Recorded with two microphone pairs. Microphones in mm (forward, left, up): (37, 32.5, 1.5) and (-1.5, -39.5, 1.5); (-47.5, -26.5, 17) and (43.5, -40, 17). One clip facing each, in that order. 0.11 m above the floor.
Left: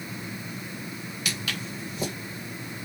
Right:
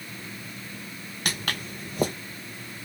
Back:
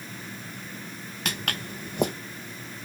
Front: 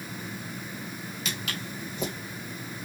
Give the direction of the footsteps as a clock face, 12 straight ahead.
5 o'clock.